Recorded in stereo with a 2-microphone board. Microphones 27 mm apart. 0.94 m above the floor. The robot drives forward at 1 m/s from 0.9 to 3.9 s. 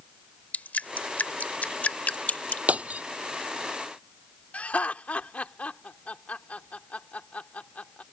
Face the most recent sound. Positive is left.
turn(degrees=60)  # may be behind; listen again after turning